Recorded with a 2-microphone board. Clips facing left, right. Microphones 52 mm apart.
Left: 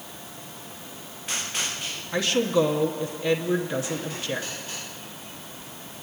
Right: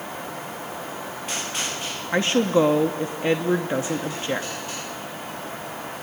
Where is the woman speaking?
35° right (ahead or behind), 1.0 m.